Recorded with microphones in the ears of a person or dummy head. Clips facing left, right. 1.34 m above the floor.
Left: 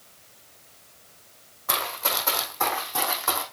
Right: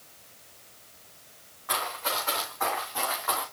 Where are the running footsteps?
75° left (ahead or behind), 4.5 m; by 3.4 s 55° left (ahead or behind), 4 m.